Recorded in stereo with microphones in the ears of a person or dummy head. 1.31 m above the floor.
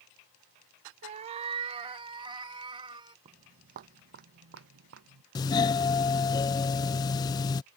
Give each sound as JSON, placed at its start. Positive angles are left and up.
{"t": 1.0, "sound": "a cat meowing", "side_deg": -30}
{"t": 3.2, "sound": "footsteps", "side_deg": -30}
{"t": 5.3, "sound": "a doorbell", "side_deg": 20}